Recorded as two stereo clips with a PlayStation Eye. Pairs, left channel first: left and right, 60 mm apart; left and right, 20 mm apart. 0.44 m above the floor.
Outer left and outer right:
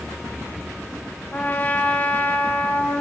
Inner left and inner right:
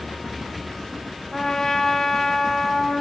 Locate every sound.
1.3 s a trumpet: 30° left (ahead or behind), 0.9 m